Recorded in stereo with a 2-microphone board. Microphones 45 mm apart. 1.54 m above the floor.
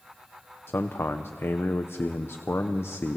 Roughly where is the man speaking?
Left.